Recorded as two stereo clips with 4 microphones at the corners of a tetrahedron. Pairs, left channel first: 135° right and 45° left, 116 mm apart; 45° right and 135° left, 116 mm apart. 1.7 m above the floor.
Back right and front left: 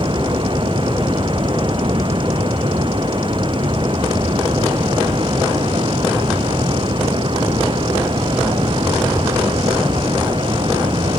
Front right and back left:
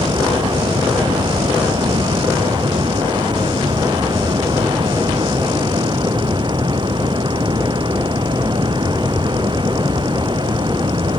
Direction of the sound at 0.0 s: 90° left.